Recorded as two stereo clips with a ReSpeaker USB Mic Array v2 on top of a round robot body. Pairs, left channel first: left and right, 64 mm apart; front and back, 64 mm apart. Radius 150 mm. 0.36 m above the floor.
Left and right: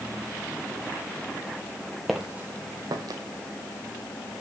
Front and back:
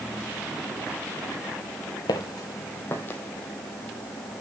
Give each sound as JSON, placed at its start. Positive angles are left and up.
{"t": 2.1, "sound": "footsteps", "azimuth_deg": 0, "distance_m": 0.6}